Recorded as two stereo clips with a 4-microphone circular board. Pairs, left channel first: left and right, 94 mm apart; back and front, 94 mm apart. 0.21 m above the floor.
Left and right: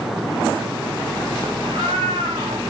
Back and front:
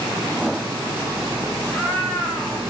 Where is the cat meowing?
95° right, 3.5 m.